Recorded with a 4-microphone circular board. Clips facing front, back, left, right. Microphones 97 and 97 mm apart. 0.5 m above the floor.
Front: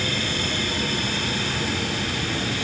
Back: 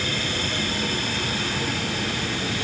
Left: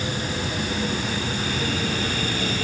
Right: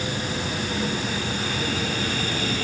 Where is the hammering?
I don't hear hammering.